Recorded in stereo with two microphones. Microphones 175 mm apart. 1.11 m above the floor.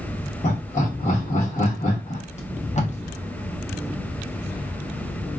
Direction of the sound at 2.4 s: 40° left (ahead or behind).